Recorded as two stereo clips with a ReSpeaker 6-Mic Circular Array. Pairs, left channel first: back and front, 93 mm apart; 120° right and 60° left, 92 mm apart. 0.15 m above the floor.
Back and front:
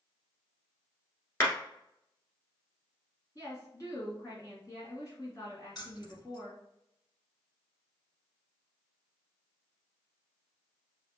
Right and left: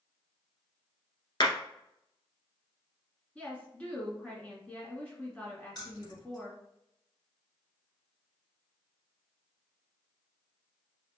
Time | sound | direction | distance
1.4 | a clap | 125° right | 1.5 m
3.4 | a woman speaking | 170° left | 1.9 m
5.8 | keys jangling | 150° right | 1.6 m